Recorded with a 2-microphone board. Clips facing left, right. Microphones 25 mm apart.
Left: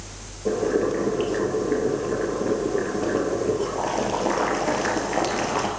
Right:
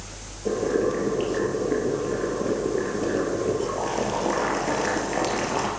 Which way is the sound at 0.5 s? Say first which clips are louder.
Left 1 dB; 5° left (ahead or behind).